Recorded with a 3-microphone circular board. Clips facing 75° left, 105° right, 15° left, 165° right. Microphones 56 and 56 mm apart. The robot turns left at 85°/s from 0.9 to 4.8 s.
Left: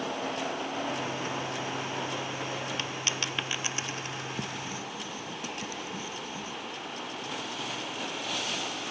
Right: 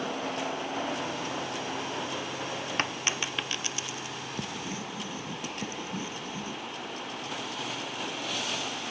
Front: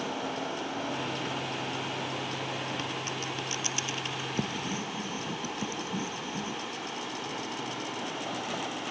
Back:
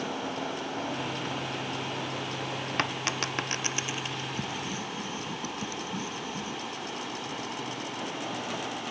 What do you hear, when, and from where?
2.8 s a dropped coin: 145° right; by 4.3 s 90° left
4.4 s writing: 10° right; by 6.6 s 45° right